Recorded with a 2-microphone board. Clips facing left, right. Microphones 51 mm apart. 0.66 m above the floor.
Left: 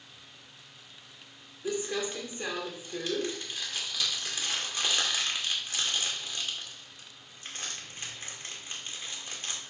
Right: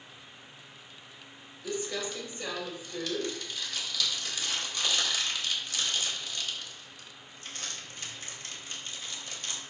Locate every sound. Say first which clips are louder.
1.6 s crumpling: left 2 dB; 30° left (ahead or behind), 2 m